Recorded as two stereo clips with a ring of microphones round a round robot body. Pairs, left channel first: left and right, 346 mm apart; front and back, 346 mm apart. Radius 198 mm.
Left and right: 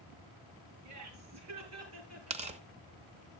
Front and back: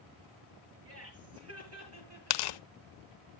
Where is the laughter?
130° right, 7 m; by 2.6 s 140° right, 7.5 m.